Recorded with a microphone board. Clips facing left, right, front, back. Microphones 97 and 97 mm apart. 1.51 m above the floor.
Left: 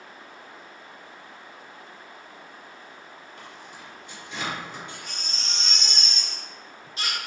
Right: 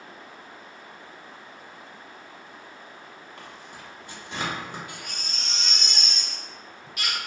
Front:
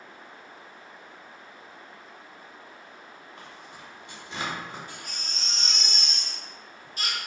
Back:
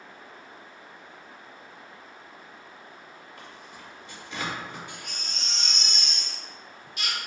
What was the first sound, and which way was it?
Tearing paper, 60° right.